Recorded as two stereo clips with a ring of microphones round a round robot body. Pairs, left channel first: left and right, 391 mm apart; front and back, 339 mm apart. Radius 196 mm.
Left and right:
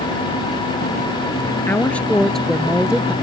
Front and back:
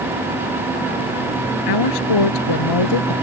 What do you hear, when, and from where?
1.7 s a woman speaking: 5° left; by 3.1 s 5° right